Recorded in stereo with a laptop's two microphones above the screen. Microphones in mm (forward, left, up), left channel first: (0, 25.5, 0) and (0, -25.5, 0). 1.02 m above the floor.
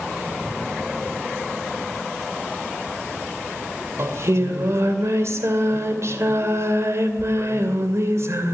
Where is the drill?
No drill in this recording.